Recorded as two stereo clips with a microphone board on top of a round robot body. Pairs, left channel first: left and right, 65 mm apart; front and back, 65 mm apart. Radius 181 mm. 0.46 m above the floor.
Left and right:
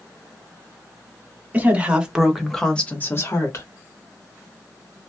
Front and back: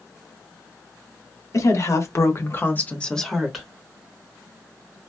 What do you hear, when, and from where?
1.5 s a woman speaking: 25° right, 1.8 m; by 3.7 s 95° left, 1.4 m